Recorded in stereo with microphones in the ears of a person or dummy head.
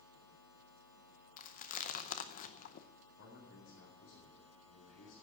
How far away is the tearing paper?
No tearing paper in this recording.